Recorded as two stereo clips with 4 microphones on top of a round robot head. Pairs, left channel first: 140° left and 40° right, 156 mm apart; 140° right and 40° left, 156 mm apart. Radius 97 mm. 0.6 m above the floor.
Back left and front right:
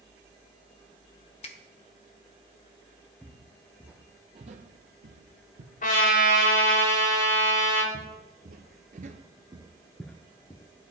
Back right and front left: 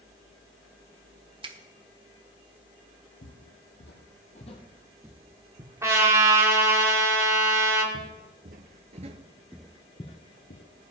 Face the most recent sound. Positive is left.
turn(degrees=-160)